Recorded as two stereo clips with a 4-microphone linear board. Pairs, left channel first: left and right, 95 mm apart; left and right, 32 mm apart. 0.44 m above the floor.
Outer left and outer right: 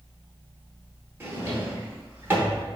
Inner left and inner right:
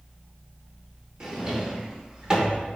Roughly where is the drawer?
Right.